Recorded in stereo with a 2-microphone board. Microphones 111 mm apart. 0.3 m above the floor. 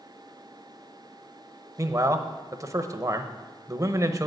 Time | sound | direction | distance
1.8 | a man speaking | 30° right (ahead or behind) | 0.9 m